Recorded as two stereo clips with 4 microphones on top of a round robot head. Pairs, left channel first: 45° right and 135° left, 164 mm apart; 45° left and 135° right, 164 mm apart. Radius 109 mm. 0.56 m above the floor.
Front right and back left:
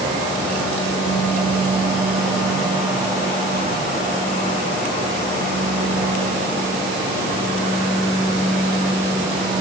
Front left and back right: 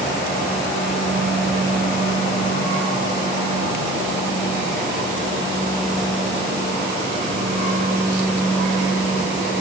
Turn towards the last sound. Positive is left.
No sound to turn to.